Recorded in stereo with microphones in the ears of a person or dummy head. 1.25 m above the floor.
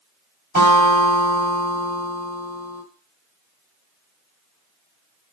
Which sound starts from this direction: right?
A guitar, at 0.6 s.